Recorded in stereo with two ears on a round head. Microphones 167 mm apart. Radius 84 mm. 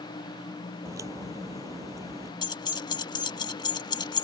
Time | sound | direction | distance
0.8 | a crack | 20° right (ahead or behind) | ?
2.4 | keys jangling | 20° left (ahead or behind) | ?